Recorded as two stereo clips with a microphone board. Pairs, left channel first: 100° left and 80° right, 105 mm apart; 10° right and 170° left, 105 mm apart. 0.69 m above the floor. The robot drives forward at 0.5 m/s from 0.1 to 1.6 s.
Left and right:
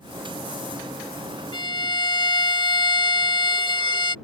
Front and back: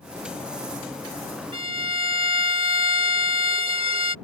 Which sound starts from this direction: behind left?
A violin, at 1.5 s.